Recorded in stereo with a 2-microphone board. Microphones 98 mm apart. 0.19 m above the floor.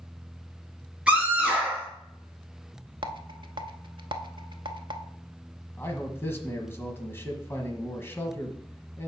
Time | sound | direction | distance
1.1 | a scream | 10° right (ahead or behind) | 4.5 m
3.0 | a rattle | 55° right (ahead or behind) | 0.6 m
5.8 | a man speaking | 25° left (ahead or behind) | 1.2 m